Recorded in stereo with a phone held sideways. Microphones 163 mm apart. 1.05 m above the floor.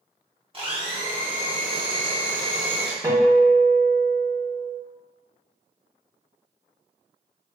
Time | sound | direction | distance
0.5 | a blender | 35° right (ahead or behind) | 0.6 m
3.0 | a guitar | 20° right (ahead or behind) | 0.6 m